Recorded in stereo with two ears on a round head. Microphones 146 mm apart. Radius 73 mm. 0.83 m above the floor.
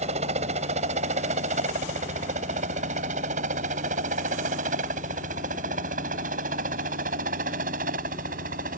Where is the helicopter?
40° right (ahead or behind); by 8.8 s 50° right (ahead or behind).